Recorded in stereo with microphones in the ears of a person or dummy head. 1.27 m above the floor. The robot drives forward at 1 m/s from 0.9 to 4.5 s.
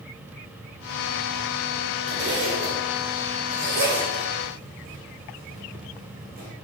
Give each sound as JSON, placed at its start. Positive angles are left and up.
{"t": 2.1, "sound": "a zipper", "side_deg": -60, "distance_m": 5.5}